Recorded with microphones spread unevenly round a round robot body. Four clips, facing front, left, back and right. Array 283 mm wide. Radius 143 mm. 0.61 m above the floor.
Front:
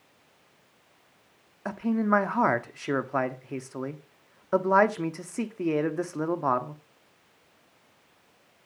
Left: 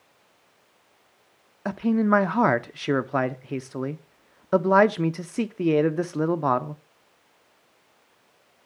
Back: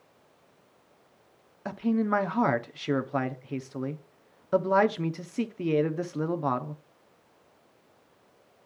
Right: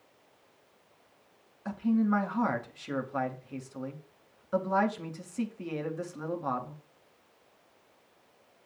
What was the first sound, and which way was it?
A man speaking, 80° left.